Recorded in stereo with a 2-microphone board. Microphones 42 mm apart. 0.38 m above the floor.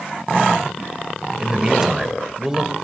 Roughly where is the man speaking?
Centre.